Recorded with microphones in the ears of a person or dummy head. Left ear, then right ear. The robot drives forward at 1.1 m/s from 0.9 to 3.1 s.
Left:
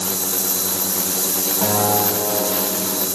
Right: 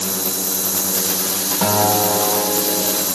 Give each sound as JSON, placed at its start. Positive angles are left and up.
{"t": 1.6, "sound": "a guitar", "side_deg": -60, "distance_m": 3.5}